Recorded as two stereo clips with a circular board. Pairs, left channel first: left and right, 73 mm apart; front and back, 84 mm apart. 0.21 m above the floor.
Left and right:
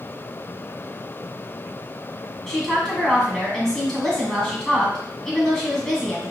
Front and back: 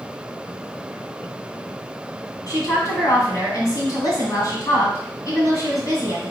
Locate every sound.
2.5 s a woman speaking: 10° left, 1.8 m